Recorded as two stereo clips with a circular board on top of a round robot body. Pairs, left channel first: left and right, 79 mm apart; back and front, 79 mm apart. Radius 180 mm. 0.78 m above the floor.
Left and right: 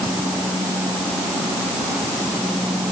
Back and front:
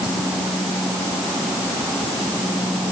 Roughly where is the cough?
No cough in this recording.